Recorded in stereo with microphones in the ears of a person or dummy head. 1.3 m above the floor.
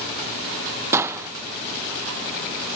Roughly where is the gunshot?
Centre.